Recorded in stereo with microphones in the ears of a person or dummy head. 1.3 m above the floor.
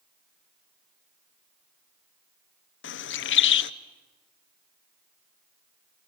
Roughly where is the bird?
Left.